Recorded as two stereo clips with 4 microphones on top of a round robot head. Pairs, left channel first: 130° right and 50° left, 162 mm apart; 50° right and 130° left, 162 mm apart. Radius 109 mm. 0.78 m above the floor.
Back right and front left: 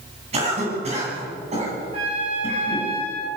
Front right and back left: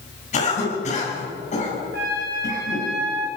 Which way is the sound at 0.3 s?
Straight ahead.